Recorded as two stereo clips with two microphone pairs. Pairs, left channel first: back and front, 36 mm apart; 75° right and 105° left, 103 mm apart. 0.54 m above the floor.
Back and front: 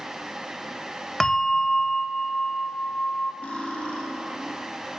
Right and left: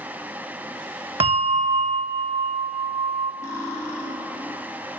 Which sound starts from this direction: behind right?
Cutlery clinking, at 3.4 s.